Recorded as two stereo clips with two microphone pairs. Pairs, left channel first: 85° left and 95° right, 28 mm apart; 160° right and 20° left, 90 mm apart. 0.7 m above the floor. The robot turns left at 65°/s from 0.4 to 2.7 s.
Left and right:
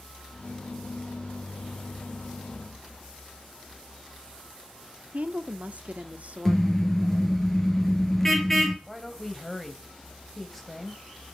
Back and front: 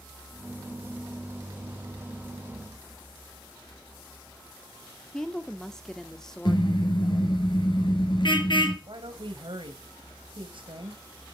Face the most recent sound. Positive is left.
turn(degrees=0)